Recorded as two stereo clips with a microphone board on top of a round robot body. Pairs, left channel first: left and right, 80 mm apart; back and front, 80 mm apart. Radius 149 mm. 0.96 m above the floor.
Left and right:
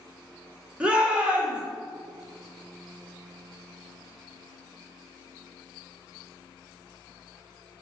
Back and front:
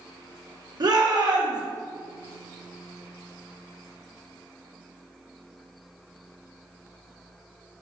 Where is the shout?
15° right, 1.4 m.